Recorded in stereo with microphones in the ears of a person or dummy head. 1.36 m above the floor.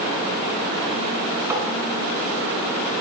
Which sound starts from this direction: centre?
Tapping, at 1.5 s.